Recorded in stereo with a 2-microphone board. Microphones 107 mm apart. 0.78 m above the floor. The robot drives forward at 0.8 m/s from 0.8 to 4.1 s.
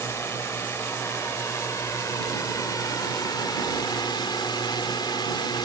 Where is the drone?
25° left (ahead or behind); by 5.7 s 45° left (ahead or behind).